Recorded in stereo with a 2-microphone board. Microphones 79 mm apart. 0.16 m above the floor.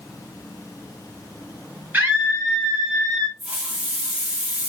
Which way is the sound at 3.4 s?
10° right (ahead or behind).